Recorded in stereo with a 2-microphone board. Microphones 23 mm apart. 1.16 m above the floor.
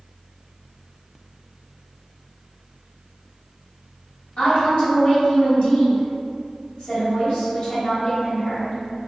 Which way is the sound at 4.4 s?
55° left (ahead or behind).